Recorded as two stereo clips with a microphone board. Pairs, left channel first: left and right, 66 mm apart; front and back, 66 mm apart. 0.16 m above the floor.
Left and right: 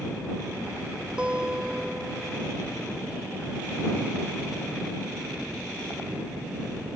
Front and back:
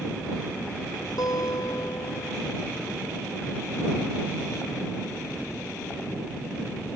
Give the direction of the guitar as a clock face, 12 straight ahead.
12 o'clock.